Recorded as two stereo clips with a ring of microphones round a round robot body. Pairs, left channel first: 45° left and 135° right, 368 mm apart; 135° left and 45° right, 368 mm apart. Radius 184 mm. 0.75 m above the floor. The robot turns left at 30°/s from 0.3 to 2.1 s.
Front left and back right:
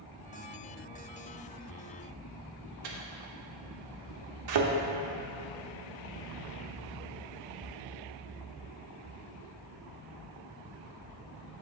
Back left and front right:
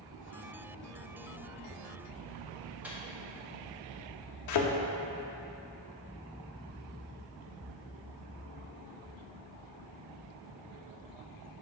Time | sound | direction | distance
2.8 | a microwave | 130° right | 1.0 m
4.5 | a thud | straight behind | 0.7 m